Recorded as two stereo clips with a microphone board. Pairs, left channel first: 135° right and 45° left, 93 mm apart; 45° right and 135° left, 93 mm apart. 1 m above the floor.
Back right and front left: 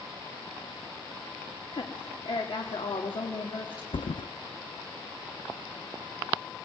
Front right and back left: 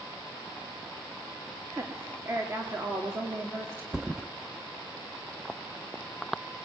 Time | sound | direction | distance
1.7 | a woman speaking | 165° right | 2.5 m
3.9 | a thud | 140° right | 0.6 m